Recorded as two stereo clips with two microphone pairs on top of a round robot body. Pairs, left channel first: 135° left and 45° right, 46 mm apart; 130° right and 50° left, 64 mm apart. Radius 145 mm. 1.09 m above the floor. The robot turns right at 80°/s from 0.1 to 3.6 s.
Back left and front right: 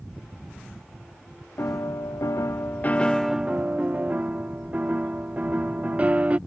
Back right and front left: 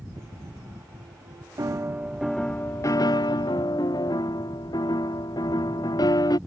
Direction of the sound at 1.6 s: 90° left.